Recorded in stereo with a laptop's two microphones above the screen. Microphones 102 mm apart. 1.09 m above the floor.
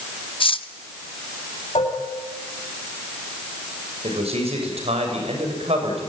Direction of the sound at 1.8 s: 75° left (ahead or behind).